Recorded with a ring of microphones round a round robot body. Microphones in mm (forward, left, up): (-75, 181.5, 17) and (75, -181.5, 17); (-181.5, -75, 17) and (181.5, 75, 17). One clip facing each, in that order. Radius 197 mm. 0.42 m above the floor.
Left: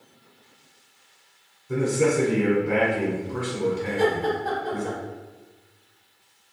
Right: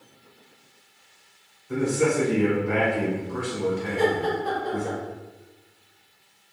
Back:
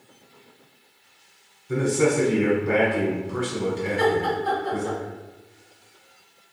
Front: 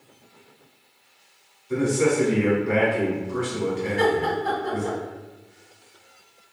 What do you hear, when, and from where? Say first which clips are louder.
1.7 s a man speaking: left 1 dB, even; 175° left, 1.0 m
3.9 s laughter: right 1 dB, even; 5° left, 1.5 m